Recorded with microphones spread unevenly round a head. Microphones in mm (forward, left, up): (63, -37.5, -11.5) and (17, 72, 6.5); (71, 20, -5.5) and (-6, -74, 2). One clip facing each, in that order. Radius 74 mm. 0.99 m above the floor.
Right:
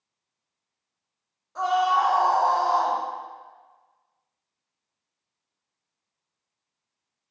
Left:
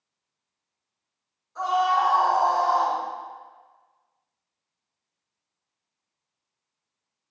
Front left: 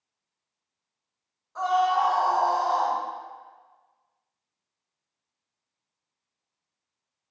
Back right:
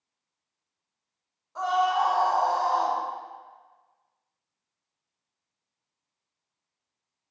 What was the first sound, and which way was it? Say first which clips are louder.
A scream: even, front left 1 dB; 50° right.